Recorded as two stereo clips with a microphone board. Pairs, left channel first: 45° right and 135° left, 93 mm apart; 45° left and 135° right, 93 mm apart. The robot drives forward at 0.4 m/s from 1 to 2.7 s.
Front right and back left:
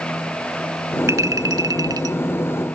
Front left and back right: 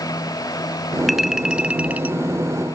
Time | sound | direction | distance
1.1 | a clink | 135° left | ?